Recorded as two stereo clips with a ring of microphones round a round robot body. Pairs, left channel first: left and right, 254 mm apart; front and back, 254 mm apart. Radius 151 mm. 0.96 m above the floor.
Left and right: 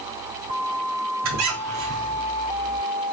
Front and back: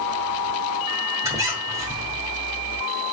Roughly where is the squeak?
Right.